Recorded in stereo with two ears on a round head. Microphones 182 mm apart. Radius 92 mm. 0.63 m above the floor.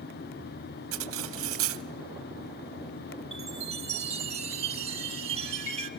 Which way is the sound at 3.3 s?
30° right (ahead or behind).